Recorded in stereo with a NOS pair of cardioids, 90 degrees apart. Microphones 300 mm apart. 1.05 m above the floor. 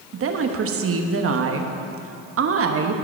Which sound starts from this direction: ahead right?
A woman speaking, at 0.1 s.